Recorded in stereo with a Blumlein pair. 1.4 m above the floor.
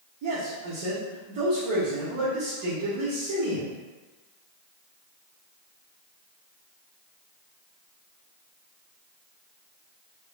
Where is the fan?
I don't hear a fan.